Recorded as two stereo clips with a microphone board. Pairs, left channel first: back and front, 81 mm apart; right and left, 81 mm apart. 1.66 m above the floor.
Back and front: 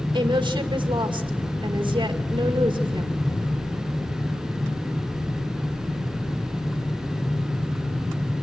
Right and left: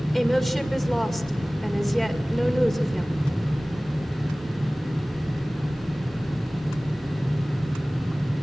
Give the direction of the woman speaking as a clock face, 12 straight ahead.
12 o'clock.